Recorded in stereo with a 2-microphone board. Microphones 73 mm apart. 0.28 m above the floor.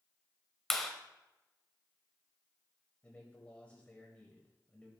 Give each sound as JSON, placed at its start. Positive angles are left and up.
{"t": 0.7, "sound": "a clap", "side_deg": 5, "distance_m": 0.9}
{"t": 3.0, "sound": "a man speaking", "side_deg": 20, "distance_m": 1.3}